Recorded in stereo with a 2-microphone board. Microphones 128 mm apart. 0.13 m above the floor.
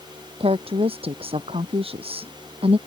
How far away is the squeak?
I don't hear a squeak.